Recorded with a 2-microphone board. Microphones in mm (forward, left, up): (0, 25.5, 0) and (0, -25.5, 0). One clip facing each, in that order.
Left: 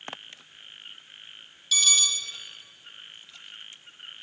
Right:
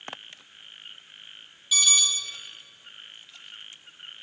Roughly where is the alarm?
Centre.